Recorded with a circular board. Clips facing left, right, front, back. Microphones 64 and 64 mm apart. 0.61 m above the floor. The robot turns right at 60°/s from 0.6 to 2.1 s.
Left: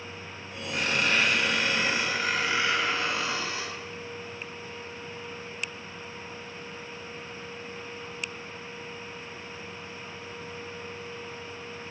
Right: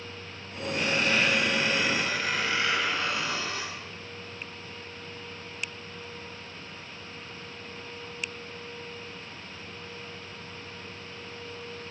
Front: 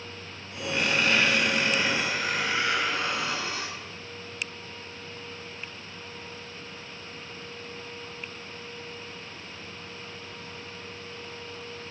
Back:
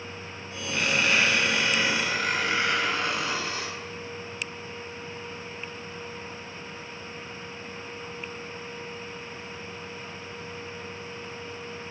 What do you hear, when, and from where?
0.7 s a squeak: 80° left, 1.0 m; by 3.7 s 160° left, 1.0 m